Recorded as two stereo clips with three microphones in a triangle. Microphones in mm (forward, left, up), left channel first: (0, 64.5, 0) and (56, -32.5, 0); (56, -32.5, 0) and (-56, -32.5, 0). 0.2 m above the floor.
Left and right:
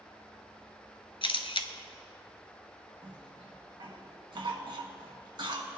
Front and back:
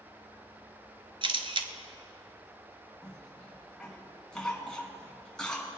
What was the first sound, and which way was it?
A camera shutter, 150° left.